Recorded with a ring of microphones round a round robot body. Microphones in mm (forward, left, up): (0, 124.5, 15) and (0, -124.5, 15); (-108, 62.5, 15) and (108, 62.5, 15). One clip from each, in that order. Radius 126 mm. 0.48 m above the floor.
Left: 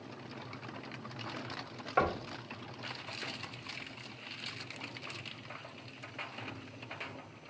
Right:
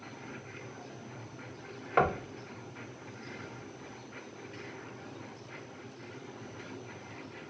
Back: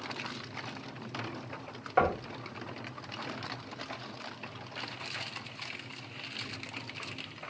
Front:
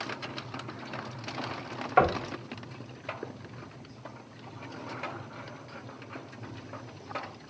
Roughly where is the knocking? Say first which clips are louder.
Right 3 dB, front 4 dB; ahead right.